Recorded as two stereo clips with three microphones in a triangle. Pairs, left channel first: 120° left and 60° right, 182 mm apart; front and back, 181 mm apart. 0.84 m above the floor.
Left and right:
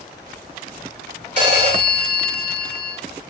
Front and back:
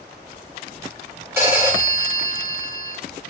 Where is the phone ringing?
105° right, 1.3 m.